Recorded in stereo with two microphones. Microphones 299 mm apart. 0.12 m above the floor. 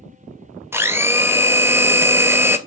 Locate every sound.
0.7 s a blender: 10° right (ahead or behind), 0.7 m